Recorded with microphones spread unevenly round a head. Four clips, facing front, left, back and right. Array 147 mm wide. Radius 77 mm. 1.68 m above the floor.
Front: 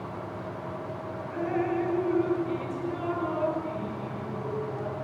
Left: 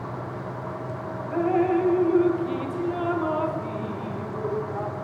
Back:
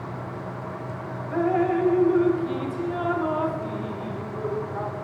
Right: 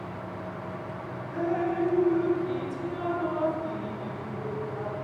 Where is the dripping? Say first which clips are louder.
Left 6 dB, back 6 dB; 135° left, 2 m.